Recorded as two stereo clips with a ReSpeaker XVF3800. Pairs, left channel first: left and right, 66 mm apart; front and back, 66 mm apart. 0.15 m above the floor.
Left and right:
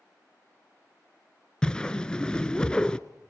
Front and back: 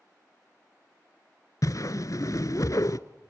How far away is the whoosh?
About 0.7 m.